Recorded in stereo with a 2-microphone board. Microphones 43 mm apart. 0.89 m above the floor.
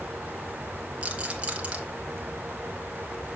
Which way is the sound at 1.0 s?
25° right (ahead or behind).